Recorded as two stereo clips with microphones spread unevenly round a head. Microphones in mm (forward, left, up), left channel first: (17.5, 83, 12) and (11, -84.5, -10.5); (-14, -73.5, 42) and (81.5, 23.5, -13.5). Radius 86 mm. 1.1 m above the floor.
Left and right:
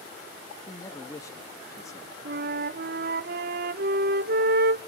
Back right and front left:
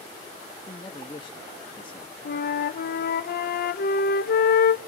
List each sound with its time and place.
0.7 s a man speaking: 160° left, 1.3 m
2.2 s a flute: 110° right, 1.0 m